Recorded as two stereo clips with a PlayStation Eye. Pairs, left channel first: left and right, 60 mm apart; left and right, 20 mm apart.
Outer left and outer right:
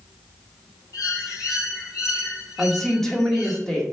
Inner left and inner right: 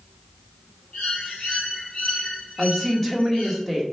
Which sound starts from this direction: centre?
A woman speaking, at 2.6 s.